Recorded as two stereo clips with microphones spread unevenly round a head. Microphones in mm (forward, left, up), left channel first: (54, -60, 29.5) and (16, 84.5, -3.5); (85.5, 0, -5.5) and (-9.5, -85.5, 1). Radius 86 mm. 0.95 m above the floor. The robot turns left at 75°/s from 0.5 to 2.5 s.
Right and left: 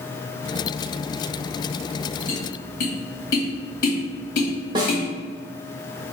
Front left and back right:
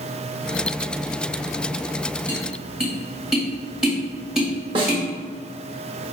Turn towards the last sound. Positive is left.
turn(degrees=175)